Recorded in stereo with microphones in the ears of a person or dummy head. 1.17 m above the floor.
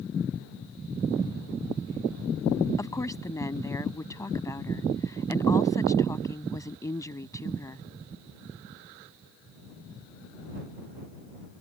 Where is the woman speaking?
20° left (ahead or behind).